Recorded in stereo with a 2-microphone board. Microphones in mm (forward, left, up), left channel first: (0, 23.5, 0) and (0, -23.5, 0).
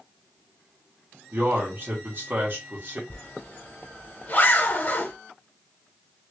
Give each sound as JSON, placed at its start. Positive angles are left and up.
{"t": 1.3, "sound": "a man speaking", "side_deg": -45, "distance_m": 1.8}
{"t": 3.1, "sound": "a zipper", "side_deg": 35, "distance_m": 0.9}